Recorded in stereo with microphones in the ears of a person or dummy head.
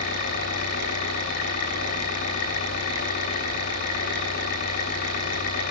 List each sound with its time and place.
0.0 s an engine running: 50° left (ahead or behind), 3.5 m